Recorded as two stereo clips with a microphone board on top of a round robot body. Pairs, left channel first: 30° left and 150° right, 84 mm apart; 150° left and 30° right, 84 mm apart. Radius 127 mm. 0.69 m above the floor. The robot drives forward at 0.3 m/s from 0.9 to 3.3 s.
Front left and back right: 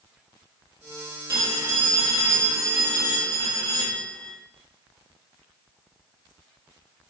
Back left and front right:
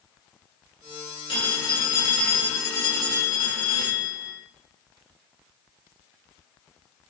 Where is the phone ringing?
160° left, 3 m; by 4.3 s 165° left, 3.5 m.